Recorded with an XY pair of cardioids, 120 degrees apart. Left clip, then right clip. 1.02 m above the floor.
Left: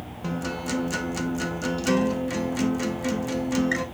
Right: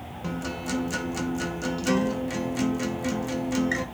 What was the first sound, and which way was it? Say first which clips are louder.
A guitar: left 2 dB; 10° left.